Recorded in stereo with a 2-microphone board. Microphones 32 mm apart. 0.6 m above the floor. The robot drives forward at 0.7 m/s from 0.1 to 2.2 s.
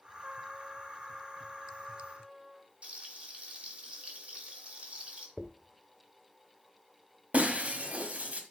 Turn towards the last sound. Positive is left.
turn(degrees=-50)  # may be behind; listen again after turning